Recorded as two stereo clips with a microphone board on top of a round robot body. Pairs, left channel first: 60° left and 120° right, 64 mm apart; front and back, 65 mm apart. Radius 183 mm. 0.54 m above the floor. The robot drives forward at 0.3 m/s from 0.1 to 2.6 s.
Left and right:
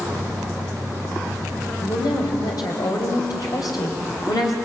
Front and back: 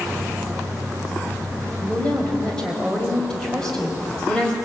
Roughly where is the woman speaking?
Left.